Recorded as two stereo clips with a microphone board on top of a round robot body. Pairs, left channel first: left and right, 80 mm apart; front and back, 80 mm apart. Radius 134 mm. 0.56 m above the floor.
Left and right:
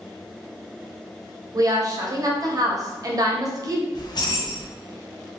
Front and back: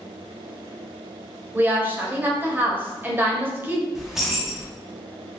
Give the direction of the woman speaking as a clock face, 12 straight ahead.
4 o'clock.